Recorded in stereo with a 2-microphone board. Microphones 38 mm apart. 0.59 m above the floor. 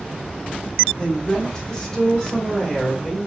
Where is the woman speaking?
20° left (ahead or behind), 1.7 m; by 3.3 s 10° left (ahead or behind), 2.5 m.